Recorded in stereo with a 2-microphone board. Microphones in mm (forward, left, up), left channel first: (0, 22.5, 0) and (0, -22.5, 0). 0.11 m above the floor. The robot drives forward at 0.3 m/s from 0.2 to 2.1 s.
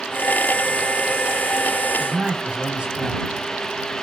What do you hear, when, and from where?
2.0 s a man speaking: 25° right (ahead or behind), 2 m